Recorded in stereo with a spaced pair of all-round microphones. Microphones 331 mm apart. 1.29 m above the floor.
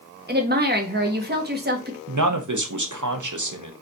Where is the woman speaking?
30° right (ahead or behind), 0.9 m.